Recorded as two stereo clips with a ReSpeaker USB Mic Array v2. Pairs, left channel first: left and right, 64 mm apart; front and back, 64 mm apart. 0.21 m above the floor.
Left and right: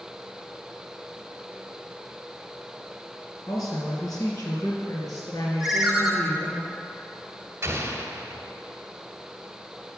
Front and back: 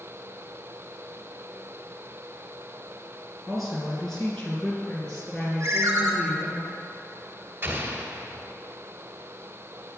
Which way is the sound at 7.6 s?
135° right.